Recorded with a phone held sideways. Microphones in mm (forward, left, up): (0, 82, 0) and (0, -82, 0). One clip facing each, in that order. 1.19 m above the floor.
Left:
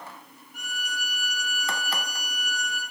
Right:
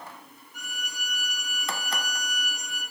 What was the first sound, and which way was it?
A violin, 55° left (ahead or behind).